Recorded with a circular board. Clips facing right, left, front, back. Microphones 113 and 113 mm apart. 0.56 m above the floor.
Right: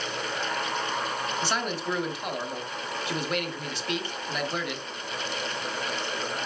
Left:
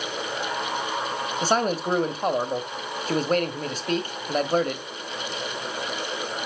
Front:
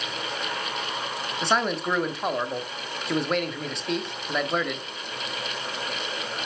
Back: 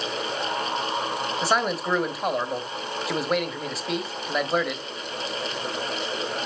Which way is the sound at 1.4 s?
95° left.